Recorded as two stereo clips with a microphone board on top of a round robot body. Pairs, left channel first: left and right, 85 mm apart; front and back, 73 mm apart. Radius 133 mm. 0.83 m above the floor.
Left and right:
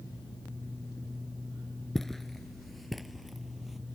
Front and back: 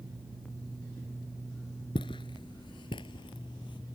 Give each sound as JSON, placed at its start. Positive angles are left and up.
{"t": 1.9, "sound": "footsteps", "azimuth_deg": 5}